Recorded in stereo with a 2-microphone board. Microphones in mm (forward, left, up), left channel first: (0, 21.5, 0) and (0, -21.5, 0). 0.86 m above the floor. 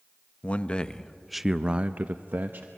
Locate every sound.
0.4 s a man speaking: 30° left (ahead or behind), 0.9 m; by 2.7 s 50° right (ahead or behind), 1.0 m